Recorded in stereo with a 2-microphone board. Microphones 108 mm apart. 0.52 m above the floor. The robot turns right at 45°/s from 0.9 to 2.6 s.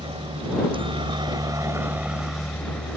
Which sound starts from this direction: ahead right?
A helicopter, at 0.0 s.